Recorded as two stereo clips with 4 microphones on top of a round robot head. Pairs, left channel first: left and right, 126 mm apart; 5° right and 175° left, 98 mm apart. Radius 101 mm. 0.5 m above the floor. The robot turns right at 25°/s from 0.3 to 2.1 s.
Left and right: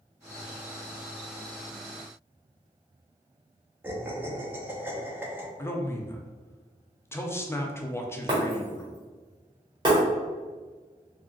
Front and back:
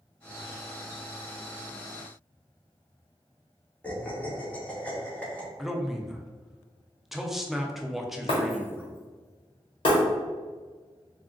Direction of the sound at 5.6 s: 90° left.